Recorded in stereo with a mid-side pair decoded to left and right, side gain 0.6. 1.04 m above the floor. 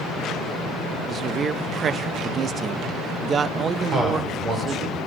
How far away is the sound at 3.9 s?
About 3.5 m.